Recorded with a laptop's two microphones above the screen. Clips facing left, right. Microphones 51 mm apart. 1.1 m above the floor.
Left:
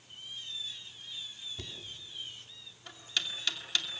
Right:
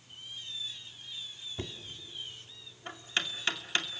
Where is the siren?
No siren in this recording.